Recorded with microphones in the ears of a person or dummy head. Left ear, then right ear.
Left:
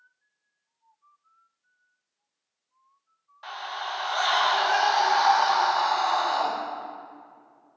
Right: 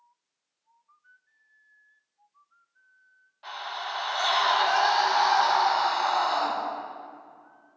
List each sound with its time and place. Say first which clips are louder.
3.4 s a scream: left 1 dB; 45° left (ahead or behind), 2.5 m